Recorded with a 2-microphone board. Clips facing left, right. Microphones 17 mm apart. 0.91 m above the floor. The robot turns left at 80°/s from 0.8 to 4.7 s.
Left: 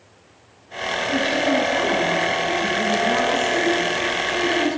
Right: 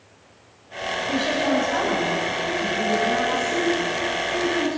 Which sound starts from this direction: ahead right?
A woman speaking, at 1.1 s.